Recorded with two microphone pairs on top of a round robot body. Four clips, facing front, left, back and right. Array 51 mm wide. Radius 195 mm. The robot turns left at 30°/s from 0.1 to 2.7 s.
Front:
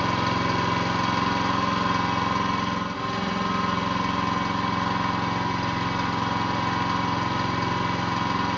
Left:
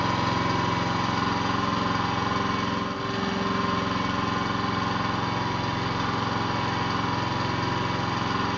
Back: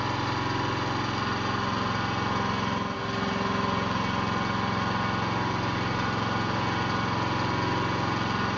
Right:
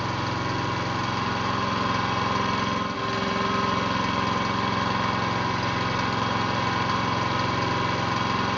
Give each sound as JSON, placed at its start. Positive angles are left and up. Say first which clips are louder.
{"t": 0.0, "sound": "an engine running", "louder": "left 3 dB, front 5 dB", "azimuth_deg": -5, "distance_m": 1.3}